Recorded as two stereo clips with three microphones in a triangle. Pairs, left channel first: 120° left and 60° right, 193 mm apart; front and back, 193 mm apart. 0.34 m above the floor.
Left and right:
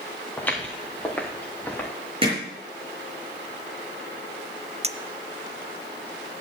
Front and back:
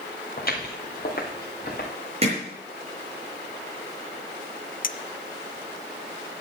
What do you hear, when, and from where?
0.4 s footsteps: 40° left, 3 m; by 1.9 s 35° left, 3.5 m
2.2 s hammering: 120° right, 5 m
4.8 s a clink: 15° right, 0.5 m